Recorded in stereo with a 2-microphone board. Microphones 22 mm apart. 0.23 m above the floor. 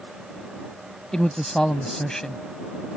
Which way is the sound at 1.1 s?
30° left (ahead or behind).